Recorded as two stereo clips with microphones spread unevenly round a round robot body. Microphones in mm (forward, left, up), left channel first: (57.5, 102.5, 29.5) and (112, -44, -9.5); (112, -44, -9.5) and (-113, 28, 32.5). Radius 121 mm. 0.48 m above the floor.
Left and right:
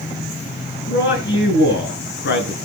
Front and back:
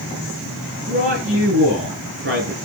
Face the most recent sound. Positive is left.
turn(degrees=115)